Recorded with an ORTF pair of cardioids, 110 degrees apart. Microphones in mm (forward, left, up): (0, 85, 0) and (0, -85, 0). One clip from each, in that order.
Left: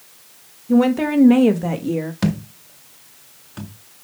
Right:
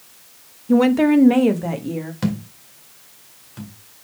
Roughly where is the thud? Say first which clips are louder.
Left 2 dB; ahead left.